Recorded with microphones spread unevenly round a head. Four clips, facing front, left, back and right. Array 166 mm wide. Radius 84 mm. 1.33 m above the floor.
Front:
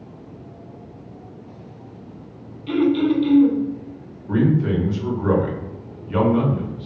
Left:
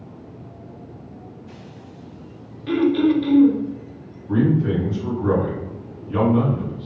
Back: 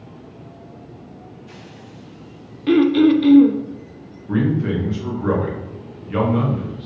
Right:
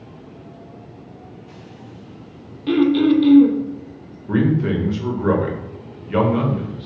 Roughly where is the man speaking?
Right.